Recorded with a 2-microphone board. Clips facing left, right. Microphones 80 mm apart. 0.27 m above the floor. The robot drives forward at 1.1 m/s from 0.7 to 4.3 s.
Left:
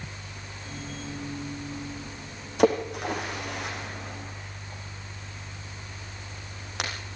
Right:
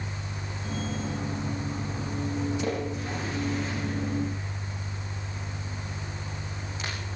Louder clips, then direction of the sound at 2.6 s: Left 7 dB; 70° left (ahead or behind).